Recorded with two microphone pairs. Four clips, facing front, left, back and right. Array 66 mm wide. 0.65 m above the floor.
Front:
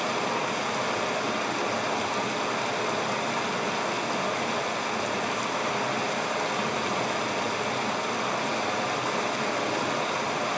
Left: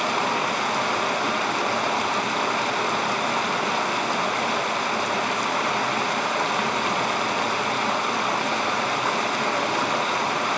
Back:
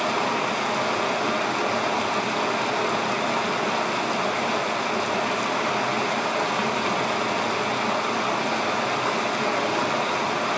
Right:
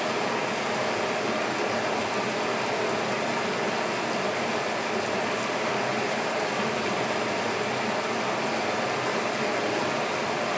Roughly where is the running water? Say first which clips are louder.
Left 4 dB, back 4 dB; left.